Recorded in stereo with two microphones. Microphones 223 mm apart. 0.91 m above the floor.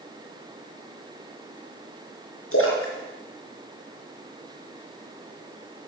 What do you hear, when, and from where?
2.5 s a splash: 80° left, 3.5 m